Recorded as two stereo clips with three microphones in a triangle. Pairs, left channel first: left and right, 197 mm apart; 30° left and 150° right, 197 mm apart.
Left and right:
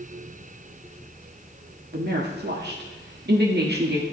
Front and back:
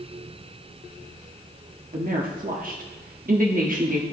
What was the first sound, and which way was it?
A woman speaking, 110° right.